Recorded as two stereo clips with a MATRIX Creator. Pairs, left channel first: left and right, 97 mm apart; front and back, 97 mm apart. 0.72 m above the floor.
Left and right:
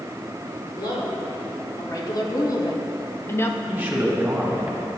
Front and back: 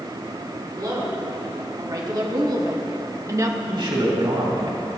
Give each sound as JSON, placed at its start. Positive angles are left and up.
{"t": 0.8, "sound": "a woman speaking", "azimuth_deg": 135, "distance_m": 2.0}
{"t": 3.7, "sound": "a man speaking", "azimuth_deg": -160, "distance_m": 2.0}